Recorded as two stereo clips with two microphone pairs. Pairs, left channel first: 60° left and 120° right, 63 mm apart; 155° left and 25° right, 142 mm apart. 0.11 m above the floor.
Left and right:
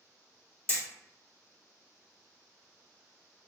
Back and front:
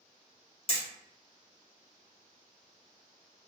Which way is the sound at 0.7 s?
120° left.